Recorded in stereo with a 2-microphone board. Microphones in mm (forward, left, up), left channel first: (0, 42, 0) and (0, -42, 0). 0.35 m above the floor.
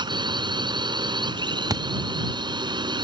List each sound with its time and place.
0.0 s a drone: 60° right (ahead or behind)
1.7 s a thud: 45° right (ahead or behind)